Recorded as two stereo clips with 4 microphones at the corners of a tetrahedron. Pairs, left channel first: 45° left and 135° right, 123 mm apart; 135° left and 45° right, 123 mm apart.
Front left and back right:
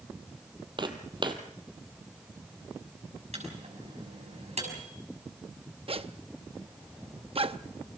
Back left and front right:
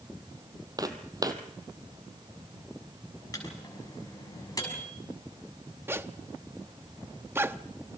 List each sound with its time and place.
0.8 s footsteps: 100° right, 1.7 m
3.3 s a microwave: 165° right, 6.5 m
5.9 s a zipper: 115° right, 0.6 m